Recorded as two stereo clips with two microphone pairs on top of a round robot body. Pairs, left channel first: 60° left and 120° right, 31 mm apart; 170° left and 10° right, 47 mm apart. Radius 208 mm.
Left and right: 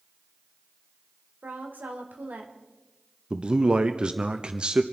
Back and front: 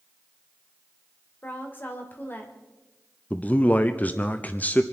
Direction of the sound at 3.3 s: 160° right.